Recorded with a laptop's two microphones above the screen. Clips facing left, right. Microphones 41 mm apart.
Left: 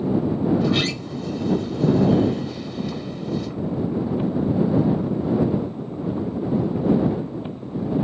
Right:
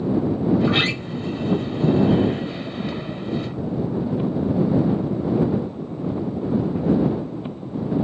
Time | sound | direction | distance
0.6 | a sliding door | 35° right (ahead or behind) | ?